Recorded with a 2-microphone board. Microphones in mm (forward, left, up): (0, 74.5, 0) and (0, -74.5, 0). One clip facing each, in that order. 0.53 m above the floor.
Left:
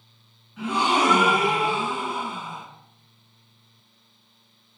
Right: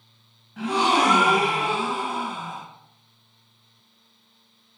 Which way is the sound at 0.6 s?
85° right.